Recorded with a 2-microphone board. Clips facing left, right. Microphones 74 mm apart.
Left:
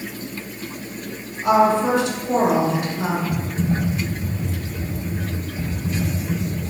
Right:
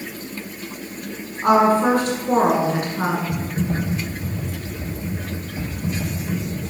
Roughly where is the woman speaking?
Right.